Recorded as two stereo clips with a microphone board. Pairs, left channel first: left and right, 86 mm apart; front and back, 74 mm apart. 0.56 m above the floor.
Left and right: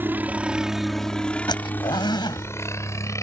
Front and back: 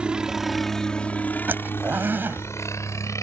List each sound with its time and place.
0.0 s a helicopter: 120° right; by 3.2 s 40° left
1.5 s a zipper: 120° left